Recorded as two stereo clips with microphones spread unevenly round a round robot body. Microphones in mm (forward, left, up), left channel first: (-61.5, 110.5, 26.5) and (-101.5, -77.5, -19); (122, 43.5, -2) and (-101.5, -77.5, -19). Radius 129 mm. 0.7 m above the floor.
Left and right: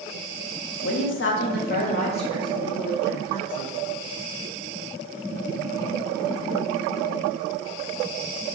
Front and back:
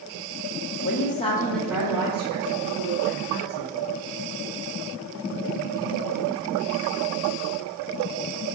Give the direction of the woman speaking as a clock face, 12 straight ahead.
10 o'clock.